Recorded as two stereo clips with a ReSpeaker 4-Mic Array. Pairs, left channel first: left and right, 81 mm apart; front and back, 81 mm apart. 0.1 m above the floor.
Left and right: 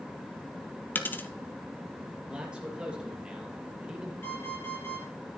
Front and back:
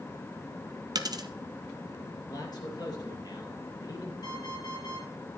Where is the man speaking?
15° right, 3 m.